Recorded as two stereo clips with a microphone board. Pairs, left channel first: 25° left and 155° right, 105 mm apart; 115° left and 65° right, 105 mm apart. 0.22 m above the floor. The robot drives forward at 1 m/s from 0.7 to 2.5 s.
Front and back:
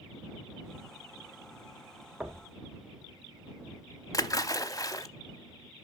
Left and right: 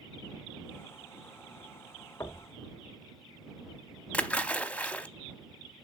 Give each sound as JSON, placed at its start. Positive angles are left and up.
{"t": 2.2, "sound": "knocking", "azimuth_deg": 130, "distance_m": 0.7}
{"t": 4.1, "sound": "a splash", "azimuth_deg": 45, "distance_m": 0.6}